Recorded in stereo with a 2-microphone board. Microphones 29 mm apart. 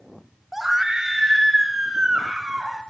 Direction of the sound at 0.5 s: 10° right (ahead or behind).